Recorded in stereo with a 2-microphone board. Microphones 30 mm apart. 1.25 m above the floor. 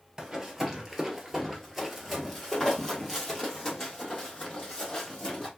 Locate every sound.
0.2 s running footsteps: 15° right (ahead or behind), 1.3 m; by 5.5 s 25° left (ahead or behind), 2.5 m